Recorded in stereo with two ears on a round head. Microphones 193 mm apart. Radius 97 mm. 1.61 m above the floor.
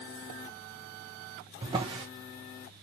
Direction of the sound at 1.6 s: 25° right (ahead or behind).